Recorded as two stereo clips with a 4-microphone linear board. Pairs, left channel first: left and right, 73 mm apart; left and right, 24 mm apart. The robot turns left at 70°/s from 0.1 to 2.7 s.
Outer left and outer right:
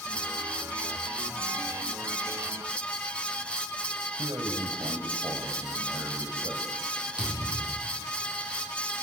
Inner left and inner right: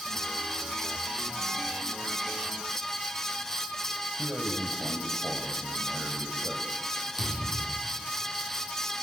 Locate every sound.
4.2 s a man speaking: 50° right (ahead or behind), 3 m
7.2 s a thud: 10° right (ahead or behind), 7 m